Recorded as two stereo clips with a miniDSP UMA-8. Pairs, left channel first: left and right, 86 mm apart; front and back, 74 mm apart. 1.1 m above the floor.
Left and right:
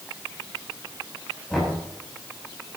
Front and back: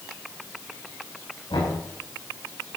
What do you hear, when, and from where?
1.5 s knocking: 5° left, 8 m